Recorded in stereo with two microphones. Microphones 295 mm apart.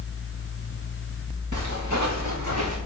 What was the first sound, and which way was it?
Footsteps, 85° right.